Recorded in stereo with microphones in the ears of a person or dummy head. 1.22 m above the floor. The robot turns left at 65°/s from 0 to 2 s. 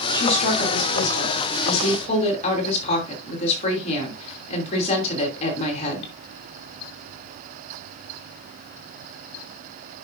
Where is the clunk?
I don't hear a clunk.